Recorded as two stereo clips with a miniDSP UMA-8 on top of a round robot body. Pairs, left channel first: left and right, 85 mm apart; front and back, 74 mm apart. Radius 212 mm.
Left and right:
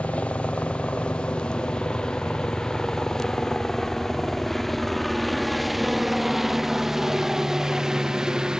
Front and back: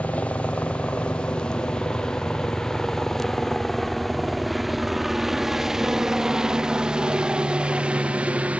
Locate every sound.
0.0 s a helicopter: 40° left; by 8.6 s 155° right